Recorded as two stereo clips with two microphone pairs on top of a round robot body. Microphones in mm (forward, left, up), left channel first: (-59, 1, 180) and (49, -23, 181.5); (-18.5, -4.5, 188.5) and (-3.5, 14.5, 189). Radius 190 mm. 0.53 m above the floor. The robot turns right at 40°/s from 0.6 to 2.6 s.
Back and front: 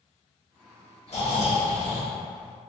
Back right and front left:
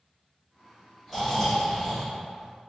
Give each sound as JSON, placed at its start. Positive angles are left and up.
{"t": 1.1, "sound": "snoring", "azimuth_deg": 130, "distance_m": 1.6}